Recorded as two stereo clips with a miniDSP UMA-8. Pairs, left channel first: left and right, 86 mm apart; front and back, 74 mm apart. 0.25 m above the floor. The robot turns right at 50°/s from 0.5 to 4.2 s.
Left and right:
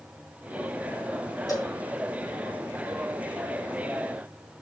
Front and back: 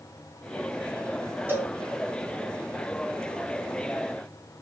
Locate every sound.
1.5 s a cowbell: 125° left, 2.5 m; by 1.7 s 140° left, 2.5 m